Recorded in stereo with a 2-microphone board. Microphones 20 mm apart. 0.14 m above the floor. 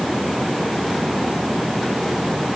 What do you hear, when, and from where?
Only background noise.